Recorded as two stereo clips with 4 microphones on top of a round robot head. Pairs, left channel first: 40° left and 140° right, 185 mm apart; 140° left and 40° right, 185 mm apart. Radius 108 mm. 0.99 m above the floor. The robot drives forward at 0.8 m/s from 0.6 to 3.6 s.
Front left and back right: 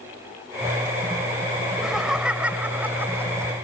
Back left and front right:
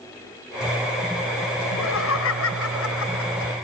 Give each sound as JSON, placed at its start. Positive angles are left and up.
{"t": 1.6, "sound": "laughter", "azimuth_deg": 130}